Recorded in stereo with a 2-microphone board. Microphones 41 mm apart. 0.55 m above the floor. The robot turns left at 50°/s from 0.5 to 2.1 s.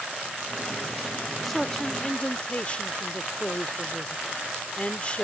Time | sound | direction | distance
1.4 | a man speaking | 175° left | ?